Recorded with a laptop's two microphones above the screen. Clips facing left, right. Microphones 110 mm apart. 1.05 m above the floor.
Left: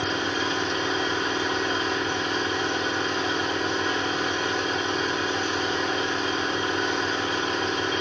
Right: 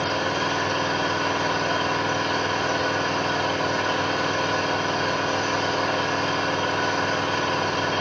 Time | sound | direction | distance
0.0 | an engine running | 60° right (ahead or behind) | 3.5 m